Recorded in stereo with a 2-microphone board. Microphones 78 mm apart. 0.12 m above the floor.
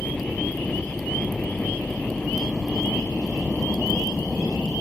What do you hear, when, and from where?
0.0 s a helicopter: 10° left (ahead or behind)